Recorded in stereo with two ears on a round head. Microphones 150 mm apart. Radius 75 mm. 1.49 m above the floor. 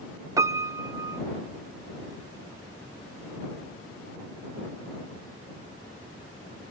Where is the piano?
20° right (ahead or behind).